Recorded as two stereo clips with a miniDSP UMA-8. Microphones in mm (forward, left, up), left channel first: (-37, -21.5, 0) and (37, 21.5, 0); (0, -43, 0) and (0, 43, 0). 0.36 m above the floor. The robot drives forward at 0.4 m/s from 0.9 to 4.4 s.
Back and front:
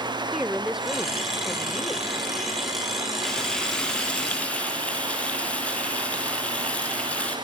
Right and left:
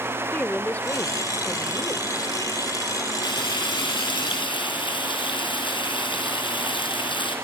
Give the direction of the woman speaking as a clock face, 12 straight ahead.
1 o'clock.